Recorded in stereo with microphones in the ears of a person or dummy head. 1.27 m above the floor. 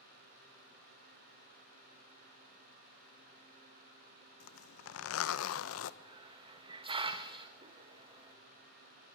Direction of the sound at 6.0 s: 25° right (ahead or behind).